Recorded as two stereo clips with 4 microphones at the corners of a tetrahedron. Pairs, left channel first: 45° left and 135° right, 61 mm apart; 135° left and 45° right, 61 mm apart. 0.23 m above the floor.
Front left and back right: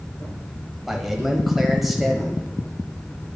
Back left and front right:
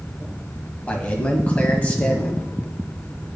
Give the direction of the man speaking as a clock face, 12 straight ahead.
7 o'clock.